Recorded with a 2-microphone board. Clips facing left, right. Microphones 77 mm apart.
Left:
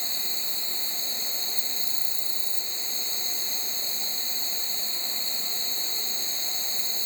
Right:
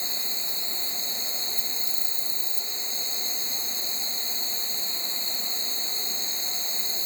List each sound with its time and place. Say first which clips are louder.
0.0 s an insect: right 1 dB; 40° right (ahead or behind), 0.8 m